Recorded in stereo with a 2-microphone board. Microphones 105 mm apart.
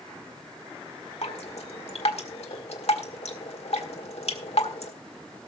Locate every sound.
1.2 s dripping: 80° left, 1.7 m